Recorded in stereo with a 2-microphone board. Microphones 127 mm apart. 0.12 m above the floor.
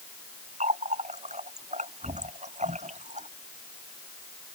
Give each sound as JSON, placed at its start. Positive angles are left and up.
{"t": 0.6, "sound": "a running tap", "side_deg": -80}